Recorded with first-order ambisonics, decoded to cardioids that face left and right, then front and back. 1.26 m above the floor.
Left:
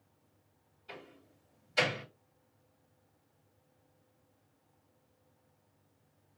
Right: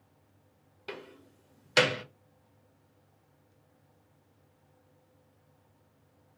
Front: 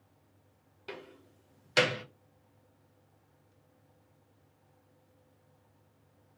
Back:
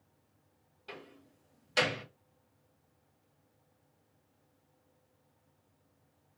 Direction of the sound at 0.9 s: 65° right.